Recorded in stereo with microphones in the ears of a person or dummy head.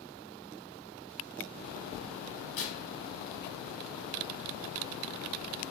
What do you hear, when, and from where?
2.6 s tearing paper: 45° left (ahead or behind), 1.1 m